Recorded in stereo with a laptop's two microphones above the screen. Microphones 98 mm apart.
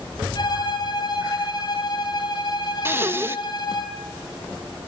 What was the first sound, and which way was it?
A violin, 45° left (ahead or behind).